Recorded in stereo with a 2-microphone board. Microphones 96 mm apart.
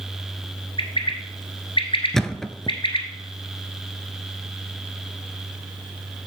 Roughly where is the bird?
Left.